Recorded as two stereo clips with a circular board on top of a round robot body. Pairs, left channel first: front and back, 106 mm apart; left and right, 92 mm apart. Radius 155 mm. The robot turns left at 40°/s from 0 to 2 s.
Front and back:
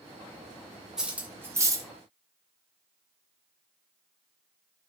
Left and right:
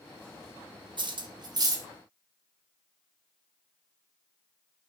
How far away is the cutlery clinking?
About 0.6 m.